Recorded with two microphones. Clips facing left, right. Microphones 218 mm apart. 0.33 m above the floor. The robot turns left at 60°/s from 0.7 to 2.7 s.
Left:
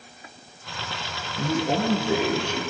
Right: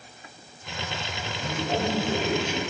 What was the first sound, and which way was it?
A man speaking, 60° left.